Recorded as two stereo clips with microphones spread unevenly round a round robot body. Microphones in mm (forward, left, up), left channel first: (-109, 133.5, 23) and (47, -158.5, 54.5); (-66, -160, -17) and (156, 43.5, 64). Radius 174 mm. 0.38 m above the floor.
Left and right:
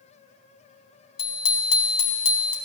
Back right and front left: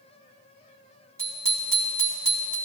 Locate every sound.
1.2 s a bicycle bell: 125° left, 2.5 m